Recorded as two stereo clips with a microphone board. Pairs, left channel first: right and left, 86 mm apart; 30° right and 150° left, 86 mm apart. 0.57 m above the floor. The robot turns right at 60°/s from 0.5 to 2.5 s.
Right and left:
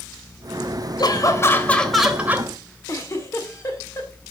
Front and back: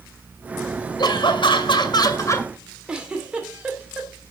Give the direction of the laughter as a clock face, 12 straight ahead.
2 o'clock.